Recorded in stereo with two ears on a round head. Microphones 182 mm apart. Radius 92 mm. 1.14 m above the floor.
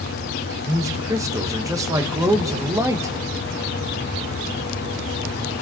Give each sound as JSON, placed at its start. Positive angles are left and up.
{"t": 0.7, "sound": "a man speaking", "side_deg": -15, "distance_m": 1.6}